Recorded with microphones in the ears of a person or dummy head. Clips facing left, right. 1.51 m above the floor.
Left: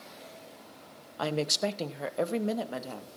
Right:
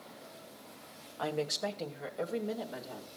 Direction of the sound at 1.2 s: 65° left (ahead or behind).